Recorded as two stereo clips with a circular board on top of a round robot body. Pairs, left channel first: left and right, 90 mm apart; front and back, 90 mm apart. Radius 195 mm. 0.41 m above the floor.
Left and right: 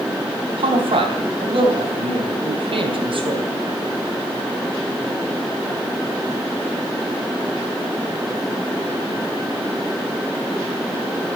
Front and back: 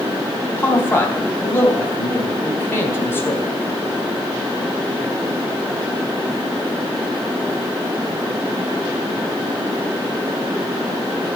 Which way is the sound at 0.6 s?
65° right.